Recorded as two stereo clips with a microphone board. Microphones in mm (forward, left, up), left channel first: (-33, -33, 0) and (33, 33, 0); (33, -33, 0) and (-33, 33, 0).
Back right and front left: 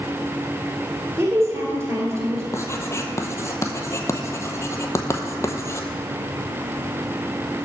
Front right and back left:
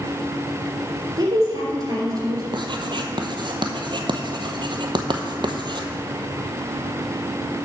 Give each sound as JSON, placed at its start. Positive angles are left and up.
{"t": 1.2, "sound": "a woman speaking", "azimuth_deg": 100, "distance_m": 2.5}
{"t": 2.5, "sound": "writing", "azimuth_deg": 165, "distance_m": 0.8}